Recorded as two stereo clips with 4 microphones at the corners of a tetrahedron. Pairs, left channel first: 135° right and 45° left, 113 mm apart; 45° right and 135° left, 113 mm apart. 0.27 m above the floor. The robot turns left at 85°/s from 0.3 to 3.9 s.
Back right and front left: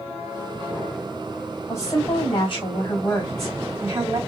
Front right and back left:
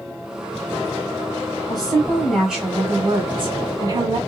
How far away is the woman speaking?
About 2 m.